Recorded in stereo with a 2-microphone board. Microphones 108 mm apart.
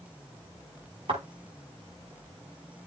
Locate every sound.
1.1 s a thud: 60° right (ahead or behind), 9 m